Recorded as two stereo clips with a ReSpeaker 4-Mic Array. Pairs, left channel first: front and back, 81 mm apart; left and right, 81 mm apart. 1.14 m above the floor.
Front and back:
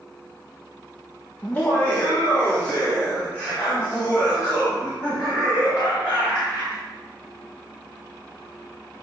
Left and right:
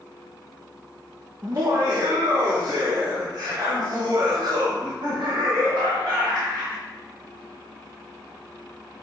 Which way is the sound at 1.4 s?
65° right.